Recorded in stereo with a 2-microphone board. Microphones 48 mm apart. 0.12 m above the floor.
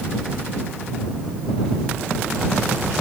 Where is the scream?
No scream in this recording.